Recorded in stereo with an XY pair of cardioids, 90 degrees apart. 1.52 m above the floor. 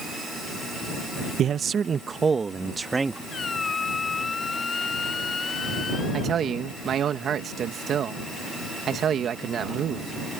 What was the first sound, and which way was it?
A man speaking, 70° right.